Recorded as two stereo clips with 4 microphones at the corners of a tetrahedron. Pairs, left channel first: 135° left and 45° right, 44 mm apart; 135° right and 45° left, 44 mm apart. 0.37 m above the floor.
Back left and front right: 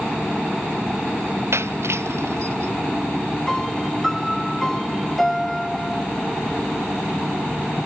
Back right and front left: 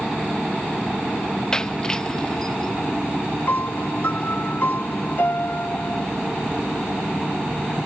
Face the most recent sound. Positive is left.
turn(degrees=-140)